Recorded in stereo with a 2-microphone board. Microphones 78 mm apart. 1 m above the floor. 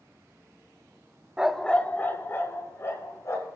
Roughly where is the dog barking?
Centre.